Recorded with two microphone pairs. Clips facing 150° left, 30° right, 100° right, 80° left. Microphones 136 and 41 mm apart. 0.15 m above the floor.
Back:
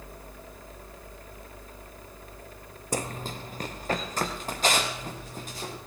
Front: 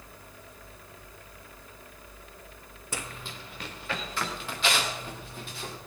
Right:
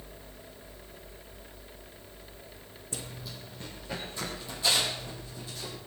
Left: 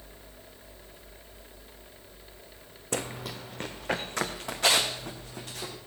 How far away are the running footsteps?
About 0.5 m.